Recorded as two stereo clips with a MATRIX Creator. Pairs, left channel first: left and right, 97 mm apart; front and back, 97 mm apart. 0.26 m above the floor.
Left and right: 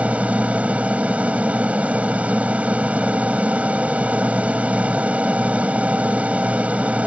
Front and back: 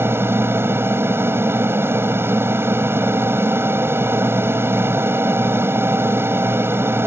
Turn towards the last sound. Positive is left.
turn(degrees=-150)